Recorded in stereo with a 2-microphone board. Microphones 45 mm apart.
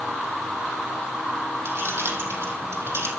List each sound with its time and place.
1.6 s keys jangling: 75° right (ahead or behind), 4.5 m